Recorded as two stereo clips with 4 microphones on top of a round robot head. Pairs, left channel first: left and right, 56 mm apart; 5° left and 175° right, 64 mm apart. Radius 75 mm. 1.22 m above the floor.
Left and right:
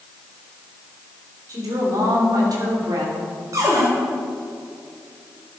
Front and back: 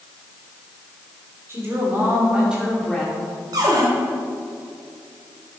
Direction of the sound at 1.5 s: 120° right.